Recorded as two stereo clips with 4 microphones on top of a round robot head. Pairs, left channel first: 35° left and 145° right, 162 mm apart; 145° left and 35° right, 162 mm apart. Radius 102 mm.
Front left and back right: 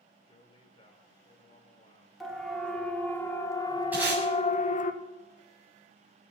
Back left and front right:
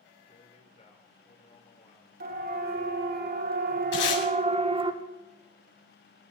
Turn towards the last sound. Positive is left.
turn(degrees=135)